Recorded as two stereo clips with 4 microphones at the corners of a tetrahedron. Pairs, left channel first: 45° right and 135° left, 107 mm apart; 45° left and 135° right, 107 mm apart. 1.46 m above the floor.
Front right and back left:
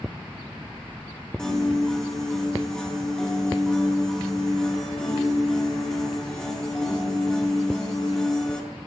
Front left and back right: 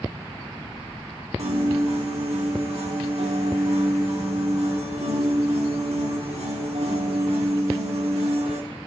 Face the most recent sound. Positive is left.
turn(degrees=-130)